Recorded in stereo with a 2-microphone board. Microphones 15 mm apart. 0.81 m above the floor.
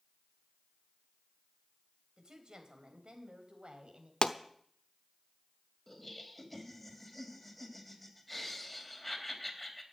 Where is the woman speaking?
55° right (ahead or behind), 4 m; by 4.1 s 85° right, 4.5 m.